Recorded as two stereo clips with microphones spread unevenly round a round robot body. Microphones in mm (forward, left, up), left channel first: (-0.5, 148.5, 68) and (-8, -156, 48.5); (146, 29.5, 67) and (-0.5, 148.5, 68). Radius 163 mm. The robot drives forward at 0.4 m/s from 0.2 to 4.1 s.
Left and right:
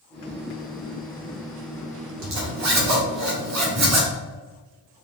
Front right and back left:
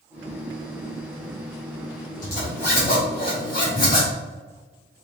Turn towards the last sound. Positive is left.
turn(degrees=-110)